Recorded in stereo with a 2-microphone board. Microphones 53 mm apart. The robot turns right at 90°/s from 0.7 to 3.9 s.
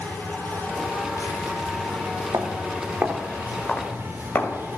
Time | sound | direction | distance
0.0 | an insect | 35° left | 6 m
2.3 | footsteps | 75° right (ahead or behind) | 3.5 m